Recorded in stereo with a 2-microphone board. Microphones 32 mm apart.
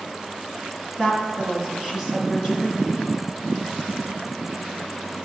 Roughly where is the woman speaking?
Centre.